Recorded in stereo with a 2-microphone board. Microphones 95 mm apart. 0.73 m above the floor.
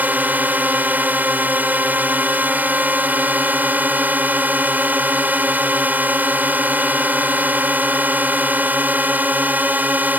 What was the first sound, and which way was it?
A drone, 20° right (ahead or behind).